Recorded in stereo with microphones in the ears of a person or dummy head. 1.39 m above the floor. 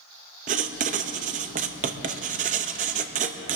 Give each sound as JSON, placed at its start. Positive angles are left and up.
{"t": 0.5, "sound": "writing", "side_deg": -35, "distance_m": 0.6}